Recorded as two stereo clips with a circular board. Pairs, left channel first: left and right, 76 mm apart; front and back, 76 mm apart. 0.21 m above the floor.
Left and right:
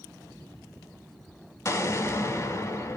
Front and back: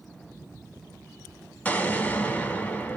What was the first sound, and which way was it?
An explosion, 60° left.